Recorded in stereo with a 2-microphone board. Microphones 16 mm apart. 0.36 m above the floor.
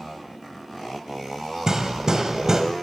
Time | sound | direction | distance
1.7 | hammering | 40° right (ahead or behind) | 1.3 m